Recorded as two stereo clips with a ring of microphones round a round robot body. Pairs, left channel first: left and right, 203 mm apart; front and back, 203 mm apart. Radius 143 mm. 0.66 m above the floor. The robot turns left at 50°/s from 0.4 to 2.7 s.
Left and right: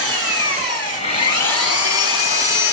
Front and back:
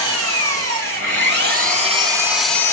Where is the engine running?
165° right, 3.5 m; by 2.7 s 80° left, 3.5 m.